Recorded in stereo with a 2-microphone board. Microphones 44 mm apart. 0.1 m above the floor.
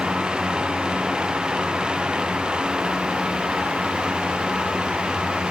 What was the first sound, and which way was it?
Only background noise.